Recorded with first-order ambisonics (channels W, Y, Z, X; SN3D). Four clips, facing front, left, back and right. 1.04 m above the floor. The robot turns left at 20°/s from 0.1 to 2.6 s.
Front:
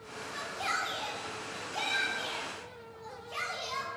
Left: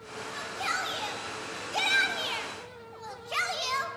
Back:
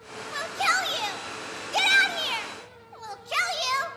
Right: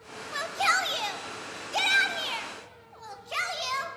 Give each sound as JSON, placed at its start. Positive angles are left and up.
{"t": 0.3, "sound": "a shout", "azimuth_deg": -135, "distance_m": 0.5}